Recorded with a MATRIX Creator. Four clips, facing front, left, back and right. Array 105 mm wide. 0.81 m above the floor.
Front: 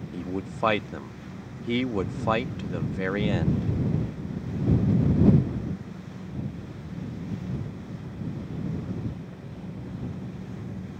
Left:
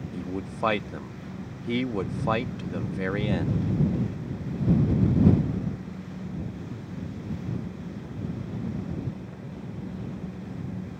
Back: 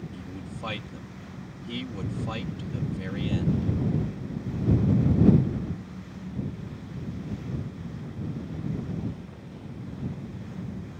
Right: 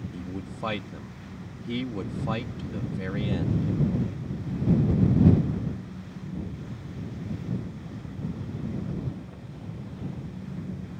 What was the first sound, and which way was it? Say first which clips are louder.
A man speaking: left 3 dB, front 7 dB; 35° left.